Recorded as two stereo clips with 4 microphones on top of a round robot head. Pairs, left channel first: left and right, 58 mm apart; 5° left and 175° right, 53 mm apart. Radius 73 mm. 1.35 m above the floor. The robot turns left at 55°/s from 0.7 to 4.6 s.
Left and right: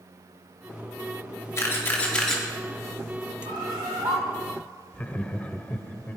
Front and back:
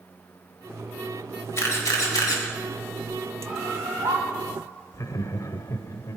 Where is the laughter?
15° left, 0.9 m.